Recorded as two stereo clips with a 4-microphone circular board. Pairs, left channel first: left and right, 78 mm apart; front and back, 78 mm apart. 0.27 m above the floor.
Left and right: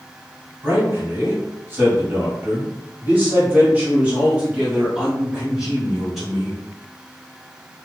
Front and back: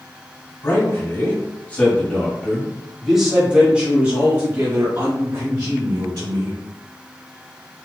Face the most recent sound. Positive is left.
turn(degrees=-175)